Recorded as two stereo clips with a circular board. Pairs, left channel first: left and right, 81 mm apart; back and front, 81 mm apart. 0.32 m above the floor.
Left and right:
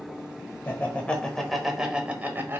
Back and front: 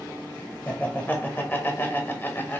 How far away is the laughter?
About 1.0 m.